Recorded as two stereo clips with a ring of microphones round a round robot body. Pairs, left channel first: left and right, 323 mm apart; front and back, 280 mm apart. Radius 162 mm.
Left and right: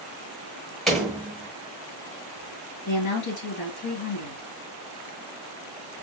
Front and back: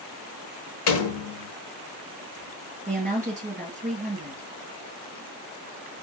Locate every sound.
0.9 s a door slam: straight ahead, 1.2 m
2.9 s a woman speaking: 120° left, 2.5 m